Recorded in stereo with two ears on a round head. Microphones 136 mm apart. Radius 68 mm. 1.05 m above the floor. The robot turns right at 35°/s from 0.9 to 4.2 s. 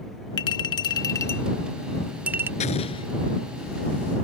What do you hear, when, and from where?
0.4 s a clink: 30° left (ahead or behind); by 2.5 s 15° right (ahead or behind)
2.6 s an explosion: 45° left (ahead or behind); by 3.1 s 30° left (ahead or behind)